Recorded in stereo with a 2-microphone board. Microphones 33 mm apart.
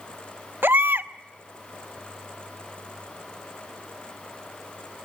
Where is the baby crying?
80° right, 0.7 m.